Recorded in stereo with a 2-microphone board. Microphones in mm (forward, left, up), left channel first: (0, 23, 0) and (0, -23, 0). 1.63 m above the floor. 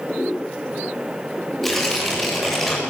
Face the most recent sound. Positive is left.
turn(degrees=0)  # may be behind; listen again after turning